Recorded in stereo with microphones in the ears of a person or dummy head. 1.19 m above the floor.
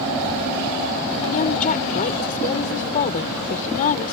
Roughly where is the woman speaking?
Left.